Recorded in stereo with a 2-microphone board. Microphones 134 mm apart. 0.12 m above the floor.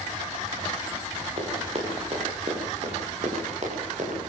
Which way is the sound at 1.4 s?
45° right (ahead or behind).